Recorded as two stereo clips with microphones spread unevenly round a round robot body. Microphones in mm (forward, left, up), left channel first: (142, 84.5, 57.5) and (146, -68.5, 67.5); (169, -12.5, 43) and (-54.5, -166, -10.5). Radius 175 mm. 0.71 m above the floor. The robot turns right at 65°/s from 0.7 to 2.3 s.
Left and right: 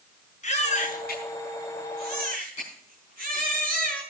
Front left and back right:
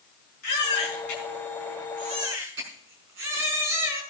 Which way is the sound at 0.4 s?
50° left.